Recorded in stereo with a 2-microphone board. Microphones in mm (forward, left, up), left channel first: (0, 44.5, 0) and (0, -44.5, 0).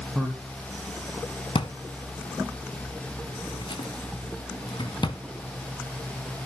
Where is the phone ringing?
No phone ringing in this recording.